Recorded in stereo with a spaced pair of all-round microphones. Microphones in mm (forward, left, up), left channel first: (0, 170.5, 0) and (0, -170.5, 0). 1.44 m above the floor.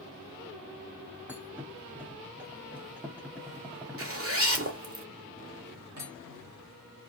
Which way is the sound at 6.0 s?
70° right (ahead or behind).